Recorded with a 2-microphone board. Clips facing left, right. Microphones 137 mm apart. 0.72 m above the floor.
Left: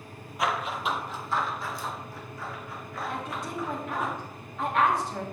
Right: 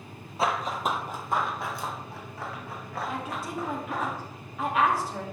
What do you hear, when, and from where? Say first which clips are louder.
0.4 s running footsteps: right 2 dB; 30° right (ahead or behind), 1.0 m; by 4.1 s 75° right (ahead or behind), 3.5 m
3.1 s a woman speaking: left 1 dB; 5° right (ahead or behind), 2 m